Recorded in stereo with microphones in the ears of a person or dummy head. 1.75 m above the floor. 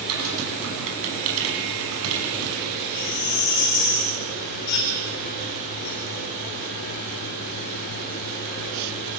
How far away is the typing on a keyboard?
About 6.5 m.